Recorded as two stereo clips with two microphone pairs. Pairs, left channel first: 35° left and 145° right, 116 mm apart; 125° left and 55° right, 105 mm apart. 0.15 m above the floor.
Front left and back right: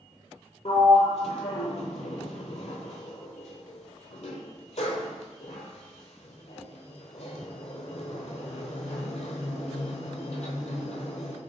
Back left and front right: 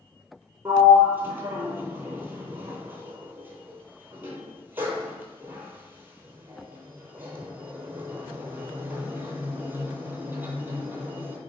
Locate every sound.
0.7 s a sliding door: 15° left, 0.6 m